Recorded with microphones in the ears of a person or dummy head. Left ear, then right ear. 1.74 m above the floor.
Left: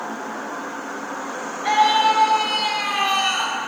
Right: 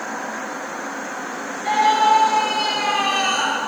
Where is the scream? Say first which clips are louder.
Right 1 dB; 25° left (ahead or behind), 9.5 m; by 3.6 s 5° left (ahead or behind), 9 m.